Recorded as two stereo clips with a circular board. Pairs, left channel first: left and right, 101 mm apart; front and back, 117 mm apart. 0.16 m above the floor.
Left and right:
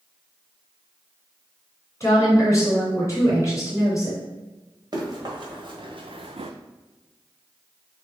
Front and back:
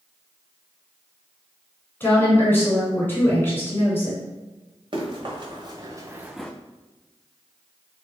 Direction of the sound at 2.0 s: 60° left.